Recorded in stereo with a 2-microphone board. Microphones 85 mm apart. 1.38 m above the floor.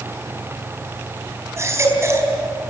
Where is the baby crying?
30° right (ahead or behind), 4 m.